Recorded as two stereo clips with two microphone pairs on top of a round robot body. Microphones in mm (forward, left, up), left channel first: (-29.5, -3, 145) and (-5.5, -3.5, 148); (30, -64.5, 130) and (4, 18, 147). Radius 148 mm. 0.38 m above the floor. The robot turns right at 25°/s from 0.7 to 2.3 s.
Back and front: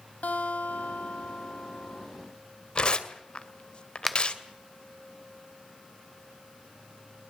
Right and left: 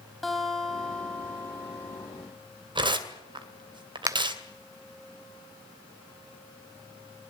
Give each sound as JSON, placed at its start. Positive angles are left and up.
{"t": 0.2, "sound": "a guitar", "azimuth_deg": -165, "distance_m": 3.0}
{"t": 2.8, "sound": "tearing paper", "azimuth_deg": 135, "distance_m": 2.5}
{"t": 4.1, "sound": "a finger snap", "azimuth_deg": 105, "distance_m": 1.2}